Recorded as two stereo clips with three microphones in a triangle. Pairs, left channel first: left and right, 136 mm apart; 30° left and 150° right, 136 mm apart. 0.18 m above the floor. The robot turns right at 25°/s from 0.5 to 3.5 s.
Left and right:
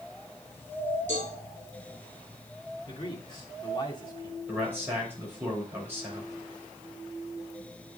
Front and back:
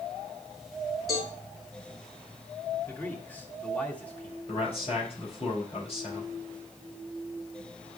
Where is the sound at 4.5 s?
15° right, 5 m.